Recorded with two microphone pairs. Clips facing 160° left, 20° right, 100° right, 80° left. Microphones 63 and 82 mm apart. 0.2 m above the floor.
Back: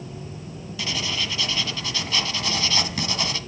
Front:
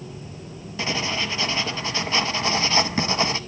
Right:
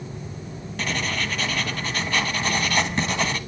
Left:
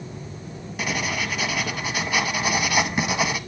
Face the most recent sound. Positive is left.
turn(degrees=10)